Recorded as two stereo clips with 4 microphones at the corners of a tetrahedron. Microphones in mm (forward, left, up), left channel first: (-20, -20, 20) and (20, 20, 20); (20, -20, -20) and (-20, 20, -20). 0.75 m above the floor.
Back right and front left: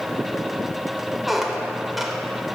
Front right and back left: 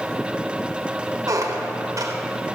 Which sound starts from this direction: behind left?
A squeak, at 1.3 s.